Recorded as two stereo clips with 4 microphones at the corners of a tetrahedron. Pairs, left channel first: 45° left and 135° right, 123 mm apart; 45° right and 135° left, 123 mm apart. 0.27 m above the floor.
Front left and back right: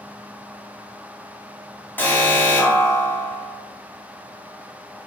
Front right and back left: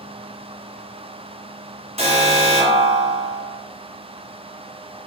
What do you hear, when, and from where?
2.0 s an alarm: 115° left, 3 m